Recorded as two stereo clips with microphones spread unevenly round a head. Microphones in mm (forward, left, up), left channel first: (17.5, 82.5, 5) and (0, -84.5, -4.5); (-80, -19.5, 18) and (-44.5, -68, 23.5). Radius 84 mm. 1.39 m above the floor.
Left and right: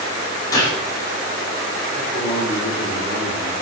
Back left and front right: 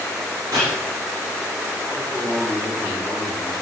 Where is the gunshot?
15° left, 5 m.